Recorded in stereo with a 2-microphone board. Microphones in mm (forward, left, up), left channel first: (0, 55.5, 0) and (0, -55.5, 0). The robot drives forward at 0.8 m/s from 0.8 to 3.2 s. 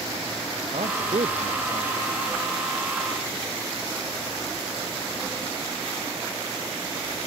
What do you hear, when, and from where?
0.7 s a man speaking: 70° right (ahead or behind); by 2.4 s 65° right (ahead or behind)